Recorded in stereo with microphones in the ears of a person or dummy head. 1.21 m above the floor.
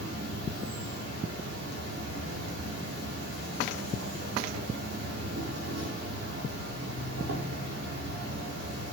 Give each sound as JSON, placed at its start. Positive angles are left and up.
{"t": 0.0, "sound": "an insect", "side_deg": -60, "distance_m": 4.5}